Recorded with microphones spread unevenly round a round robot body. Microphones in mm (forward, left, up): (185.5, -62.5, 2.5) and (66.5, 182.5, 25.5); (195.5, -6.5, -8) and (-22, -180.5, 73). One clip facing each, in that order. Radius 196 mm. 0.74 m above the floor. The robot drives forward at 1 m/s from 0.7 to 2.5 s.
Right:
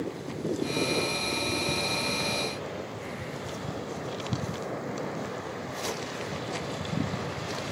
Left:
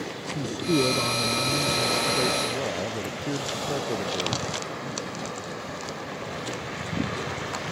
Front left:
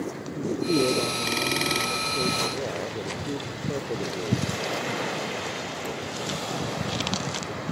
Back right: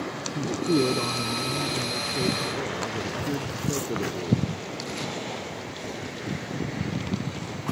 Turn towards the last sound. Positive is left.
turn(degrees=150)